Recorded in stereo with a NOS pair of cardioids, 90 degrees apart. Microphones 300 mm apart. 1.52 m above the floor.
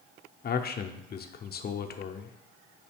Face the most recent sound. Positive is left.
turn(degrees=35)